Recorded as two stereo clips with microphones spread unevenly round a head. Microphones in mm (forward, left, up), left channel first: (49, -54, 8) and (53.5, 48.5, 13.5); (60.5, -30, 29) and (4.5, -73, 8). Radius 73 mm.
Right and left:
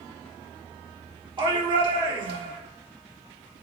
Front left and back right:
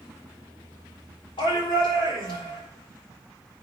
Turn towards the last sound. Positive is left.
turn(degrees=50)